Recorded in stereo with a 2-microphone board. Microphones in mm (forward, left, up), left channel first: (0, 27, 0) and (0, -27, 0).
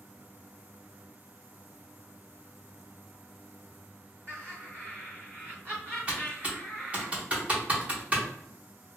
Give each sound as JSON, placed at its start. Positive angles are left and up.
{"t": 4.3, "sound": "laughter", "side_deg": -45, "distance_m": 1.6}
{"t": 6.1, "sound": "typing on a keyboard", "side_deg": -25, "distance_m": 0.8}